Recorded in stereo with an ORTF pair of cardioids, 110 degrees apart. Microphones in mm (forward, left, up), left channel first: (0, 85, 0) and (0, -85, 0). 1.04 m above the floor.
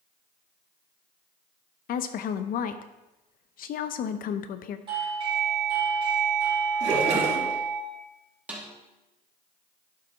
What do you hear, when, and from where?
1.9 s a woman speaking: 60° left, 0.7 m
4.9 s a doorbell: 30° right, 4 m
6.8 s a splash: 40° right, 4.5 m
8.5 s a snare drum: 10° right, 2.5 m